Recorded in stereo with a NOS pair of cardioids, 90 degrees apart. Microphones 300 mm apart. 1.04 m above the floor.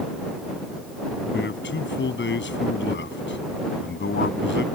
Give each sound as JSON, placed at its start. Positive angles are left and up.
{"t": 1.3, "sound": "a man speaking", "azimuth_deg": 40}